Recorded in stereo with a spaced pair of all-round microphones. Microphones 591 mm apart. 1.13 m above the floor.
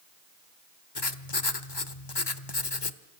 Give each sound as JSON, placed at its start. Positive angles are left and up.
{"t": 0.9, "sound": "writing", "side_deg": 45, "distance_m": 1.1}